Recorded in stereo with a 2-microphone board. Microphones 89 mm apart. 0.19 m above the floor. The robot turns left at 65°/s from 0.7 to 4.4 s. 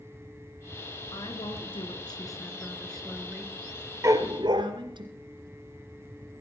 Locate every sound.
1.1 s a woman speaking: 125° left, 2 m; by 5.0 s 90° right, 2 m
4.0 s a dog barking: 35° right (ahead or behind), 1.1 m; by 4.6 s 55° right (ahead or behind), 1.1 m